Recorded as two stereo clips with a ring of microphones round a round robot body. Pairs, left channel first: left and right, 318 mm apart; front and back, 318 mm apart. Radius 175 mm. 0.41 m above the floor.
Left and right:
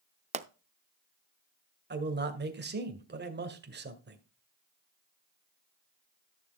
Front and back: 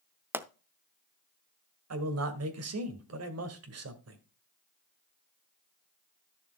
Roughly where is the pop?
Right.